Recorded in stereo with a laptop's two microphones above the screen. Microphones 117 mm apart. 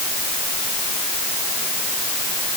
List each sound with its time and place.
Only background noise.